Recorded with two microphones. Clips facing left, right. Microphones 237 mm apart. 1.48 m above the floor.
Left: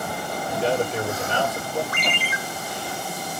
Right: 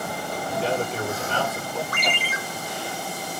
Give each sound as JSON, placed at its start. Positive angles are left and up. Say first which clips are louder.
{"t": 0.5, "sound": "a man speaking", "louder": "left 3 dB", "side_deg": 15, "distance_m": 2.5}
{"t": 1.9, "sound": "a ringtone", "louder": "even", "side_deg": -40, "distance_m": 2.5}